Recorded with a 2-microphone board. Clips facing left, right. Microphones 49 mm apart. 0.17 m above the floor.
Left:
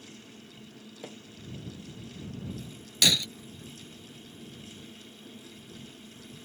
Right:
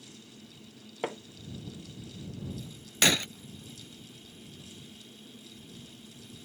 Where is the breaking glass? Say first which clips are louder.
Right 1 dB; 35° right (ahead or behind).